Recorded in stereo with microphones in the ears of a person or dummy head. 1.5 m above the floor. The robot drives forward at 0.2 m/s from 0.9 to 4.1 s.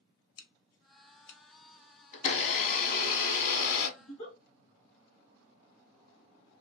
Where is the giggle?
40° left (ahead or behind), 1.3 m.